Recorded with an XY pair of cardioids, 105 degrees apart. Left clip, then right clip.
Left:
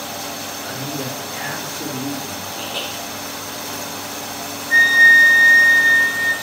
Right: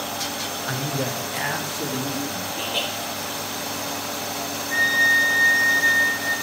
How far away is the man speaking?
About 0.7 m.